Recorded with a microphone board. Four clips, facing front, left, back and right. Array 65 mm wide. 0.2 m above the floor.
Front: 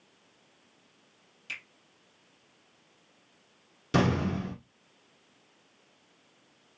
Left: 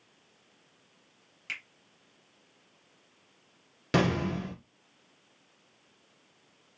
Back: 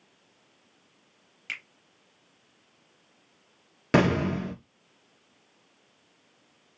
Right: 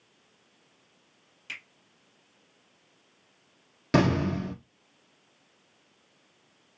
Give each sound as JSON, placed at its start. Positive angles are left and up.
{"t": 1.5, "sound": "a finger snap", "azimuth_deg": 155, "distance_m": 2.5}
{"t": 3.9, "sound": "an explosion", "azimuth_deg": -175, "distance_m": 1.2}